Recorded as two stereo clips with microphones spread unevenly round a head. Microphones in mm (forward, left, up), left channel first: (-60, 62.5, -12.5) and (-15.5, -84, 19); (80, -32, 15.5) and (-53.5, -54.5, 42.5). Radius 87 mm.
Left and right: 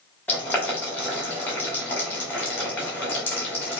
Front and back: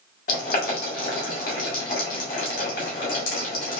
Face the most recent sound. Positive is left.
turn(degrees=20)